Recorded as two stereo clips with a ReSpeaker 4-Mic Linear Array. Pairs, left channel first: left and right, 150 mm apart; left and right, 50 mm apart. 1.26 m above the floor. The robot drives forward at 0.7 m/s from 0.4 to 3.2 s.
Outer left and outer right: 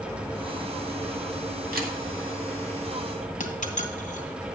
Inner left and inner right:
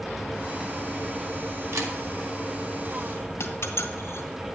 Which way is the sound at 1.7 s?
80° right.